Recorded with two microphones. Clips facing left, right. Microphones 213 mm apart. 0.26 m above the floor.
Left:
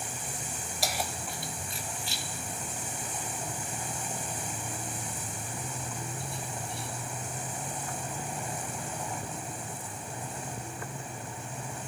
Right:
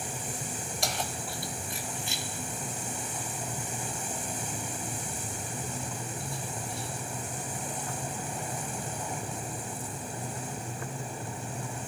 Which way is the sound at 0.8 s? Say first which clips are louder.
Left 1 dB; 5° left (ahead or behind).